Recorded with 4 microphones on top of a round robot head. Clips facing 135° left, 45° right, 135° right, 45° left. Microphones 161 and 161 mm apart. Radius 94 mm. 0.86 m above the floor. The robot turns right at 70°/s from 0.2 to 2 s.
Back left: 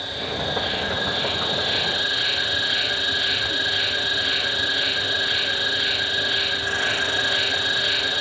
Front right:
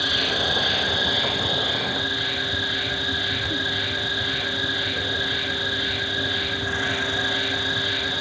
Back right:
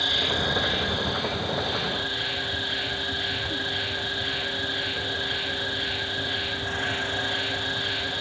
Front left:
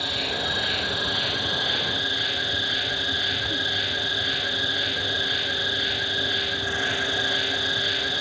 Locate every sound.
0.0 s an insect: 40° right, 2 m; by 8.2 s 90° left, 2 m